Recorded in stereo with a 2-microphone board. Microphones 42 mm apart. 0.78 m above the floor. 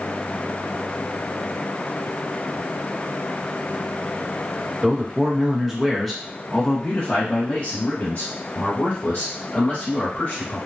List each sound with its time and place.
4.8 s a man speaking: 25° right (ahead or behind), 1.2 m; by 10.6 s 45° left (ahead or behind), 2.5 m